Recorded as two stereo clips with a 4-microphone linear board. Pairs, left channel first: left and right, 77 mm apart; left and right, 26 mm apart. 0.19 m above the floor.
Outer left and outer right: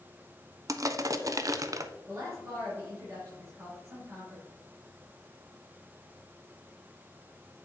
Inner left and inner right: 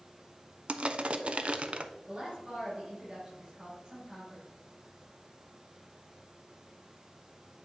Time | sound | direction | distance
0.7 | crushing | 50° right (ahead or behind) | 0.6 m
2.1 | a woman speaking | 35° right (ahead or behind) | 4 m